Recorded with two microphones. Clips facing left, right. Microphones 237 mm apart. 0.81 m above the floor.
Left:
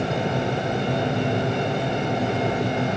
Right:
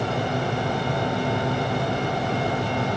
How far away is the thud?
I don't hear a thud.